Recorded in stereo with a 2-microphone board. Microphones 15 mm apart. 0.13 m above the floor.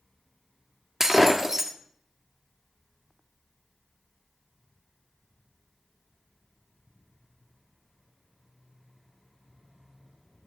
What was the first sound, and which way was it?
Breaking glass, 30° right (ahead or behind).